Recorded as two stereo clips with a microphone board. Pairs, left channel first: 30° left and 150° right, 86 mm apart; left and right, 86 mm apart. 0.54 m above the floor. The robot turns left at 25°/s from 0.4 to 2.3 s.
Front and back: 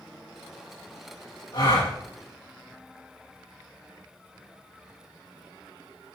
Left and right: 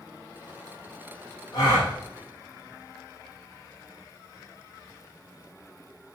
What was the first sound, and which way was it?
A gasp, 45° left.